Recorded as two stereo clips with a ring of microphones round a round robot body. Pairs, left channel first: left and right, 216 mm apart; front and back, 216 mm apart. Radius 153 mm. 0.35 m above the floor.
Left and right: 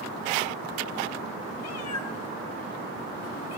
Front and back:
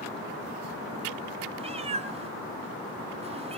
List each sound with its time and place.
1.6 s a cat meowing: 115° left, 0.8 m